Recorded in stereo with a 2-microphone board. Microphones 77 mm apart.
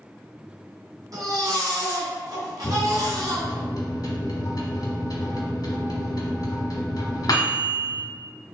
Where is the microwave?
55° left (ahead or behind), 1.2 m.